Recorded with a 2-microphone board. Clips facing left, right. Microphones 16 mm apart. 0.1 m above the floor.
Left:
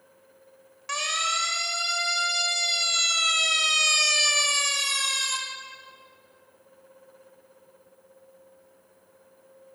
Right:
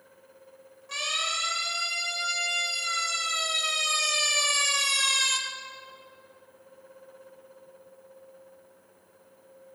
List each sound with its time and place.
0.9 s a siren: 70° left (ahead or behind), 4.5 m; by 5.4 s 20° right (ahead or behind), 2 m